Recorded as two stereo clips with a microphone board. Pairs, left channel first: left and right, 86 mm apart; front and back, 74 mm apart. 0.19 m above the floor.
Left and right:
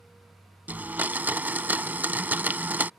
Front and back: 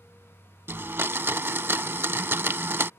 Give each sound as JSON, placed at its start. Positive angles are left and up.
{"t": 0.7, "sound": "a blender", "azimuth_deg": -145}